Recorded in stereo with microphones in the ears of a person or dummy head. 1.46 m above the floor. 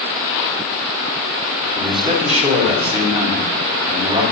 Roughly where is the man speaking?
Right.